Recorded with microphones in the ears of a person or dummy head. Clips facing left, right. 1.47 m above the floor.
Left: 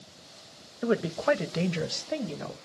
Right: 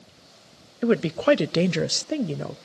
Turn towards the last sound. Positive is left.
turn(degrees=-45)  # may be behind; listen again after turning